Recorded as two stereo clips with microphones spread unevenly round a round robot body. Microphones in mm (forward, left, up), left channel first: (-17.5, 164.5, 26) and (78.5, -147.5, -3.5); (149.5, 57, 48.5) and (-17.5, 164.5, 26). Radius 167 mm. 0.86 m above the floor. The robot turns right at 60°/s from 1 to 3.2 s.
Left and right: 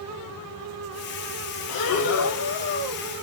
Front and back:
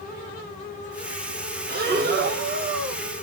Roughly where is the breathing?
Behind left.